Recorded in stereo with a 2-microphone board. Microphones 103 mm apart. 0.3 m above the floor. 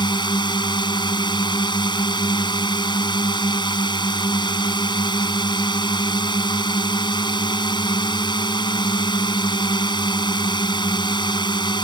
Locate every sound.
0.0 s a drone: 45° left (ahead or behind)